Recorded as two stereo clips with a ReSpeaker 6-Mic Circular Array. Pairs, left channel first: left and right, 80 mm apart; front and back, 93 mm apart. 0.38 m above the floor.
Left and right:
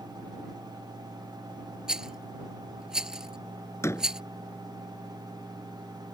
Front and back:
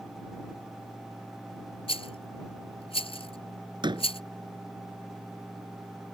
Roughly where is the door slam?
Behind left.